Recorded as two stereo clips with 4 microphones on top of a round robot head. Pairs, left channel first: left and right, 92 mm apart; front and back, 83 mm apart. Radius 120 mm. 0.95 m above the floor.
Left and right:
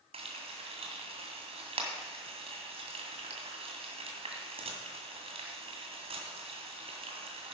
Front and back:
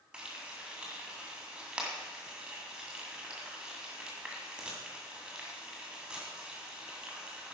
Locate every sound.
0.1 s frying: 95° right, 2 m